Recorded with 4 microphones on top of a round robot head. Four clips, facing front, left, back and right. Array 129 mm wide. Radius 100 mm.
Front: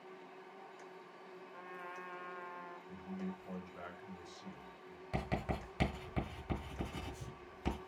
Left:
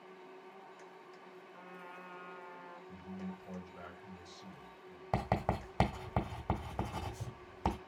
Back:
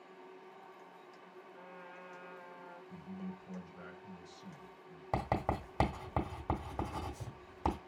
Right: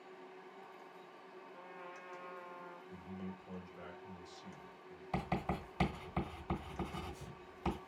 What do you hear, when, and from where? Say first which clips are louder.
1.5 s a trumpet: left 1 dB, front 4 dB; 5° left, 1.7 m
2.9 s a man speaking: left 3 dB, front 2 dB; 20° left, 2.5 m
5.1 s writing: left 4 dB, back 5 dB; 140° left, 1.5 m